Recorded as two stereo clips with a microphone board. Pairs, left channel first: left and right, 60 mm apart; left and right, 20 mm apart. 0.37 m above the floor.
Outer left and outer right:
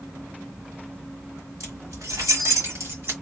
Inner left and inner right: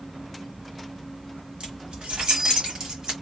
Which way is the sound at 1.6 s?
65° right (ahead or behind).